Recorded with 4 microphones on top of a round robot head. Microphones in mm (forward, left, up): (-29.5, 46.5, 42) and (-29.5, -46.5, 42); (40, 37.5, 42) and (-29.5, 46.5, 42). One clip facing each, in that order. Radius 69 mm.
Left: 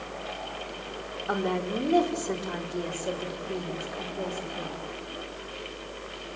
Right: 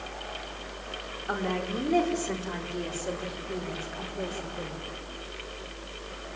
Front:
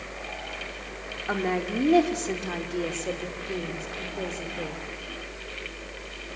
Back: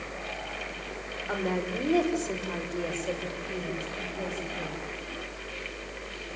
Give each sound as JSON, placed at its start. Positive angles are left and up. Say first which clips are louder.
{"t": 1.3, "sound": "a woman speaking", "louder": "left 2 dB, front 3 dB", "azimuth_deg": 15, "distance_m": 5.0}